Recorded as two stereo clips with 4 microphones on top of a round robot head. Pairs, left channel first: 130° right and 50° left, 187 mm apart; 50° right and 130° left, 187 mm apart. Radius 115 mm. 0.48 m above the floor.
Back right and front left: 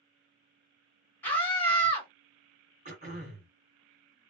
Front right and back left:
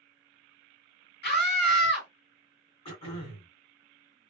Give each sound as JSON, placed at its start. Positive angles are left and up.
{"t": 1.2, "sound": "a scream", "azimuth_deg": -50, "distance_m": 2.0}
{"t": 2.9, "sound": "throat clearing", "azimuth_deg": 10, "distance_m": 2.0}